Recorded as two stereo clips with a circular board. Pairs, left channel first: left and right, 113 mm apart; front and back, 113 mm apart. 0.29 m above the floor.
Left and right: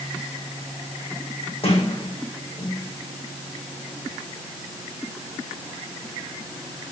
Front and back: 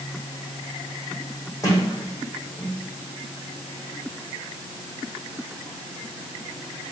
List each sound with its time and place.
1.6 s a sliding door: 60° left, 5 m